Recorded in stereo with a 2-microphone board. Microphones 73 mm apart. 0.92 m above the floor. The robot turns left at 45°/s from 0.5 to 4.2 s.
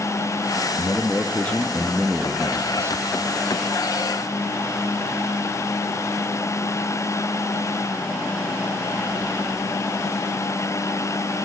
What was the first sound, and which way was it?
A man speaking, 50° left.